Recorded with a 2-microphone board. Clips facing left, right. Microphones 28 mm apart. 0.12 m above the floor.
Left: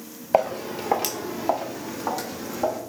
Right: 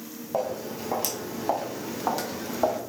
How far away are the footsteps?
About 0.8 m.